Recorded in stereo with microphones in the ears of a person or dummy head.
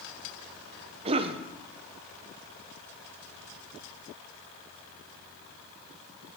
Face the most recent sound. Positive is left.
turn(degrees=-30)  # may be behind; listen again after turning